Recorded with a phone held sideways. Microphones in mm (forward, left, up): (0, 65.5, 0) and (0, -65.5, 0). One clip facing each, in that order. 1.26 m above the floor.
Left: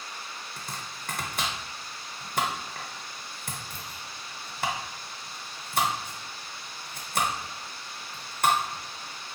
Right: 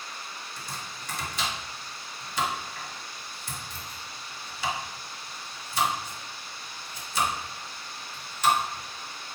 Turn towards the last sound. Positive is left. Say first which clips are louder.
# even
turn(degrees=55)  # may be behind; listen again after turning